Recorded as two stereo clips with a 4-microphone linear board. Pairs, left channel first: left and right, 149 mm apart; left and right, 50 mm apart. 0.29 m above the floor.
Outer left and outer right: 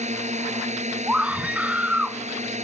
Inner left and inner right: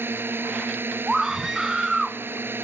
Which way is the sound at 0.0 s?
55° right (ahead or behind).